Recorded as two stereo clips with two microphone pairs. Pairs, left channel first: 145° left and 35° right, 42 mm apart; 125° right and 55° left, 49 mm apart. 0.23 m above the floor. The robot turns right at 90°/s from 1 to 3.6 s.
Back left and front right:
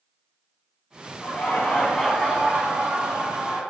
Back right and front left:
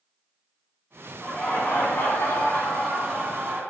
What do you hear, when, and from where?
1.2 s laughter: 160° left, 1.9 m; by 3.6 s 15° left, 1.9 m